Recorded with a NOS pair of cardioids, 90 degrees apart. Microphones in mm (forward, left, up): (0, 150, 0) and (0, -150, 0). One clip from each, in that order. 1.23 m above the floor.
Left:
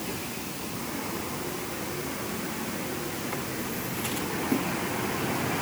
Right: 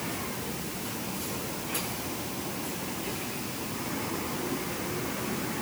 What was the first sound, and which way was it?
Only background noise.